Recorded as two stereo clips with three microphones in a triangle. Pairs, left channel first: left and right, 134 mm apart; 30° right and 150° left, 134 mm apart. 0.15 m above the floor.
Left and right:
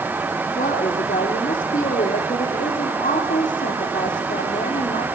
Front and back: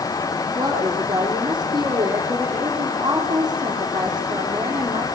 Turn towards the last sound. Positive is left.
turn(degrees=95)